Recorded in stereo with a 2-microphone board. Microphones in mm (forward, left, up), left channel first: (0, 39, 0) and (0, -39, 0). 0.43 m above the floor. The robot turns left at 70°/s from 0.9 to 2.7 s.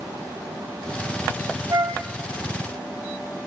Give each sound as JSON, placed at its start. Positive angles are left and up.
{"t": 1.7, "sound": "a flute", "side_deg": -50, "distance_m": 1.5}